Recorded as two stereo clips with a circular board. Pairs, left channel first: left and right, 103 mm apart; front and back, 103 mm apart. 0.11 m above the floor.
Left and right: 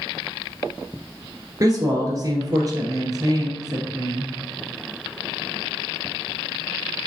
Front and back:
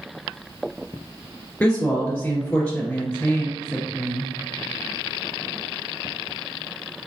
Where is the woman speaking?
65° right, 1.8 m.